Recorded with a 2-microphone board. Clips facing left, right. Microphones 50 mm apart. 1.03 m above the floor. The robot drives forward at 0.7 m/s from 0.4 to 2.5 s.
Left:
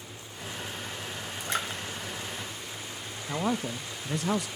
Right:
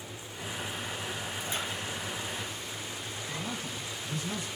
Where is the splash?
70° left (ahead or behind), 2.5 m.